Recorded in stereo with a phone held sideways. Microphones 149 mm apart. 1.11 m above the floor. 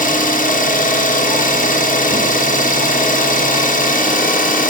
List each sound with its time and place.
0.0 s an engine running: 65° left (ahead or behind), 1.1 m